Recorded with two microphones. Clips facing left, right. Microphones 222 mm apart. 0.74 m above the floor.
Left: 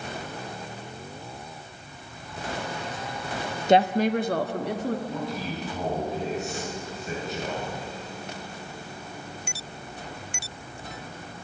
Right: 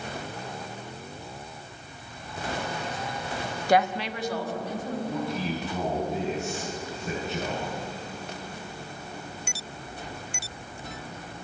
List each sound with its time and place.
3.7 s a woman speaking: 20° left (ahead or behind), 0.6 m; by 5.0 s 75° left (ahead or behind), 1.4 m
5.1 s a man speaking: 60° right (ahead or behind), 7.5 m